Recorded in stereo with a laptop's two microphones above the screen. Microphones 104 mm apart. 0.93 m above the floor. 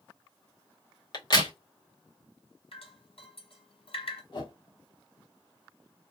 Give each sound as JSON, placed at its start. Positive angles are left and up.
{"t": 1.1, "sound": "a crack", "side_deg": 45, "distance_m": 1.0}
{"t": 2.7, "sound": "dripping", "side_deg": 65, "distance_m": 1.7}
{"t": 4.3, "sound": "a whoosh", "side_deg": 45, "distance_m": 0.9}